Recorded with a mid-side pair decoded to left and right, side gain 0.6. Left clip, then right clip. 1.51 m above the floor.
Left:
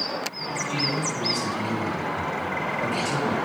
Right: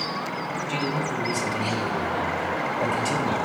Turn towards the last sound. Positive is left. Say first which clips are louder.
# left 1 dB
turn(degrees=-20)